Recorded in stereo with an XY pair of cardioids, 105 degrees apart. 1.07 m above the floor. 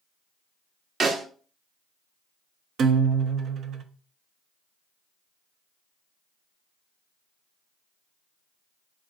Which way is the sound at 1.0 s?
45° right.